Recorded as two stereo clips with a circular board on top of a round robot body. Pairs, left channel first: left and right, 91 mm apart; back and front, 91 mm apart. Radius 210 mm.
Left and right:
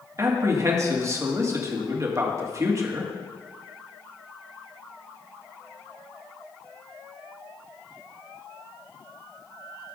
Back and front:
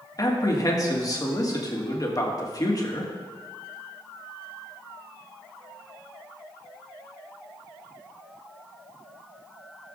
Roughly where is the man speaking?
Behind right.